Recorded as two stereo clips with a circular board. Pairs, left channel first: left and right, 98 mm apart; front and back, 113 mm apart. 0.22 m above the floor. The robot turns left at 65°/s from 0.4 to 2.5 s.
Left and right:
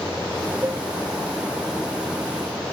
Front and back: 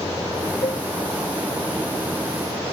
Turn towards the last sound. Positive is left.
turn(degrees=-145)